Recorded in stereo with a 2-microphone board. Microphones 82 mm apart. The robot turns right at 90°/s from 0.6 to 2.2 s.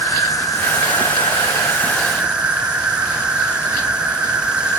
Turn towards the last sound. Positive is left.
turn(degrees=-170)